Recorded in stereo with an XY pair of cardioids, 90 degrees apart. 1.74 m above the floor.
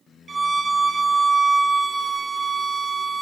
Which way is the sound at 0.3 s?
35° right.